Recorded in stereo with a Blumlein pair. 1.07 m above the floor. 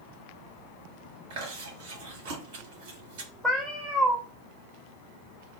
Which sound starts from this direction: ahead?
A cat meowing, at 3.4 s.